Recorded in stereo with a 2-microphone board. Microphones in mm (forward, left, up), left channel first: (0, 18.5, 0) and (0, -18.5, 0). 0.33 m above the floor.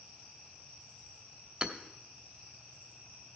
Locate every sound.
1.6 s hammering: 30° right (ahead or behind), 1.0 m